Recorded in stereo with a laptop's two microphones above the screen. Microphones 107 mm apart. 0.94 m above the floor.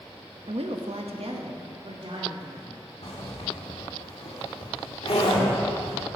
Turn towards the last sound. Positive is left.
turn(degrees=65)  # may be behind; listen again after turning